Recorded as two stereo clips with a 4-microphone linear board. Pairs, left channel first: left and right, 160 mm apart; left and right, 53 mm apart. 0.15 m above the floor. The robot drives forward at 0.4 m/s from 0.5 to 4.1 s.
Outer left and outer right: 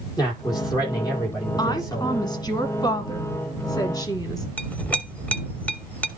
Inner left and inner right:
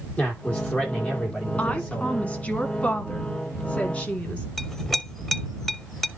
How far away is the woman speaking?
About 1.6 m.